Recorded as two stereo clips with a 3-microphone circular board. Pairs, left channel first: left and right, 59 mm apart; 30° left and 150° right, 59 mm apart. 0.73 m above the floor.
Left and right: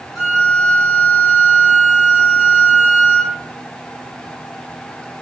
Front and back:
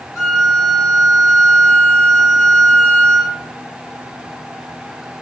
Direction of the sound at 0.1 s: 5° left.